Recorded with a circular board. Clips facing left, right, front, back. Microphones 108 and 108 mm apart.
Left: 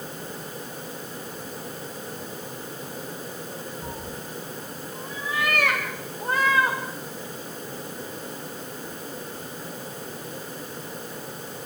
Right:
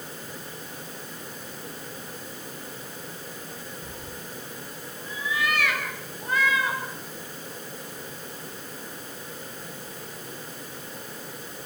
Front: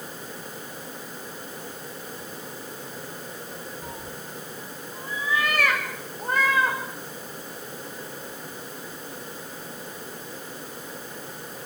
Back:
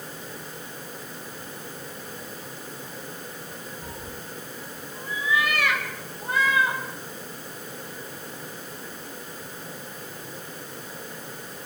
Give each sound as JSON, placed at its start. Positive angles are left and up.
{"t": 3.8, "sound": "a cat meowing", "azimuth_deg": 60, "distance_m": 6.5}